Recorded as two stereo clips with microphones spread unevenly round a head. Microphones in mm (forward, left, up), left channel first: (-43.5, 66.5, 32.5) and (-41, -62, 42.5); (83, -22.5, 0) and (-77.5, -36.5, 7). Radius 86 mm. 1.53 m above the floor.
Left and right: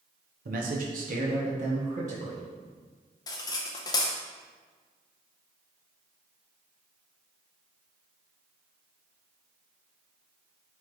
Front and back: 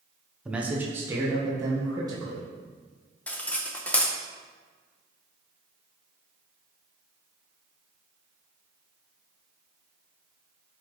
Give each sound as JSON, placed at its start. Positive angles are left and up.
{"t": 0.5, "sound": "a man speaking", "azimuth_deg": -90, "distance_m": 0.9}
{"t": 3.3, "sound": "cutlery clinking", "azimuth_deg": 80, "distance_m": 0.6}